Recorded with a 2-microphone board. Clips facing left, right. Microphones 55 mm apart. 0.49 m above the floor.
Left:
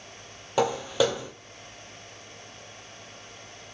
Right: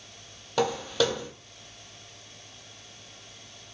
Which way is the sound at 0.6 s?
15° left (ahead or behind).